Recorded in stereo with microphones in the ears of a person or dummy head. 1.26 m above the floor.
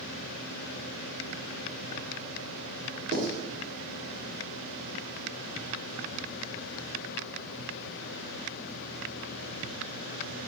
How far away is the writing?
About 2.5 m.